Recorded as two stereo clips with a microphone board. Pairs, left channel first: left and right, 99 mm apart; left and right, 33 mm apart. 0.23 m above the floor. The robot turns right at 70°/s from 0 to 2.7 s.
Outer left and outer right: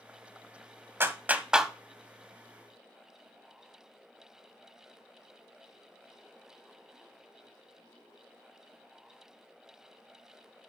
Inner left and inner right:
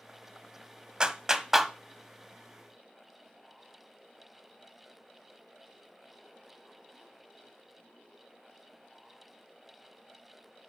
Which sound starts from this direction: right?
A clap, at 1.0 s.